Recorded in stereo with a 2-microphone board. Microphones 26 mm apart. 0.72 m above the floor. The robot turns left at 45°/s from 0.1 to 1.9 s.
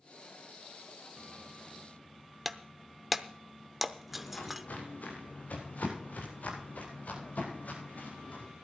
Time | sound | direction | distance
2.5 | breaking glass | 5° right (ahead or behind) | 0.7 m
4.1 | footsteps | 80° left | 6.5 m